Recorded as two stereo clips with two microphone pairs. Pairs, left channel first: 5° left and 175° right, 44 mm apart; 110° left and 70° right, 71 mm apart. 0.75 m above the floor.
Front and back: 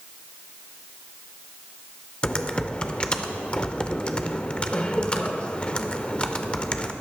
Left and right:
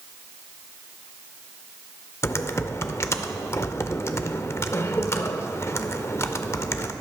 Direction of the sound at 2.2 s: 65° left.